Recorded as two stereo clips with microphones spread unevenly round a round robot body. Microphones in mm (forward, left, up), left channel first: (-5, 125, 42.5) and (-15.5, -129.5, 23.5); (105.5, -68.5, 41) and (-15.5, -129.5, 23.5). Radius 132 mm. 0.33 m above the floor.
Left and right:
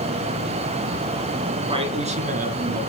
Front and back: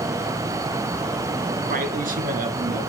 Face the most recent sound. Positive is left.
turn(degrees=-145)